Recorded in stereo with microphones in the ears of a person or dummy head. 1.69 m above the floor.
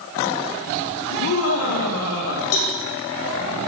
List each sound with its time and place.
1.1 s laughter: 80° left, 5 m; by 2.4 s 85° left, 4 m
2.5 s a cowbell: 85° left, 3.5 m